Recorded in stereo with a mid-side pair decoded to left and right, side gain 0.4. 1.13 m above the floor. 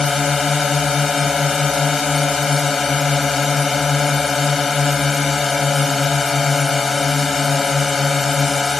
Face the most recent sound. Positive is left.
turn(degrees=35)